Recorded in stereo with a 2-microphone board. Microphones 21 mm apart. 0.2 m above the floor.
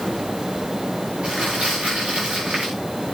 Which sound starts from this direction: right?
Crumpling, at 1.2 s.